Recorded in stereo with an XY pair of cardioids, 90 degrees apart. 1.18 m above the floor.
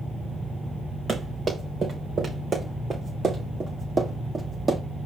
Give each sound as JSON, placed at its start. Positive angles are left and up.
{"t": 1.1, "sound": "running footsteps", "azimuth_deg": -50, "distance_m": 5.0}